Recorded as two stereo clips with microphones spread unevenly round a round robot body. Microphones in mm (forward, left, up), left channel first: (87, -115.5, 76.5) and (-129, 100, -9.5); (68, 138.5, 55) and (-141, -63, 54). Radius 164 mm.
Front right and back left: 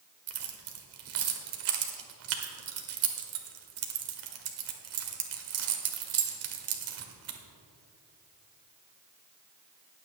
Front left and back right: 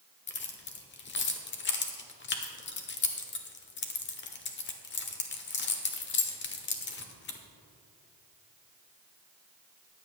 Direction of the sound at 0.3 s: 95° left.